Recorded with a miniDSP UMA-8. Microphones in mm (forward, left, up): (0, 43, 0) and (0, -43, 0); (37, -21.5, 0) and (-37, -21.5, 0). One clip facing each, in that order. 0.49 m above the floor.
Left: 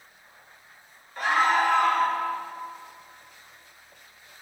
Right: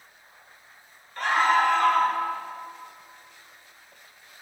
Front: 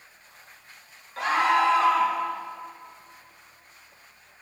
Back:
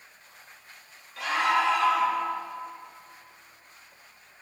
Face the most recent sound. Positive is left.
turn(degrees=15)